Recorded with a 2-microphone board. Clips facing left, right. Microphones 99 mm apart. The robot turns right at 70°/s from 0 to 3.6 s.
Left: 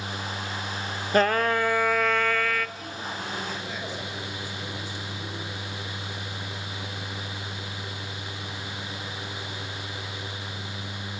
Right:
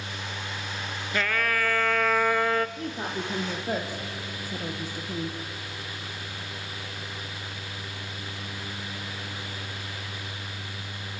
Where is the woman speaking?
45° right (ahead or behind), 3 m; by 5.3 s 50° right (ahead or behind), 3 m.